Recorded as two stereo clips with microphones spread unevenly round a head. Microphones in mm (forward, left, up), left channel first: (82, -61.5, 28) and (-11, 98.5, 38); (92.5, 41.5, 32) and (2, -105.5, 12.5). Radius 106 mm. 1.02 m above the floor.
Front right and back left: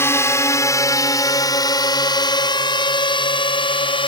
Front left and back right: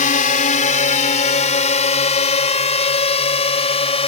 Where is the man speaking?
No man speaking in this recording.